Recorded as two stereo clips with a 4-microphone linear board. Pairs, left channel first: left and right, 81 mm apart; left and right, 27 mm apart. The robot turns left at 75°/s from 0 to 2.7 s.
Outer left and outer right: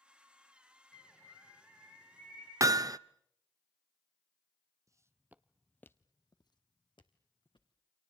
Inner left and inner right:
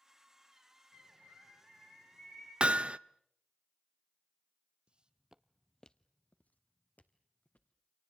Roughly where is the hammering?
Right.